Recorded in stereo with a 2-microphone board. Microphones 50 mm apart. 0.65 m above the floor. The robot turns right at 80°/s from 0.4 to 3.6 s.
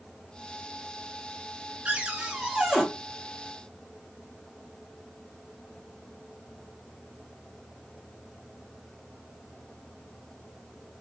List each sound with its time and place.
1.9 s a cupboard door: 25° right (ahead or behind), 0.8 m; by 2.8 s 5° right (ahead or behind), 0.8 m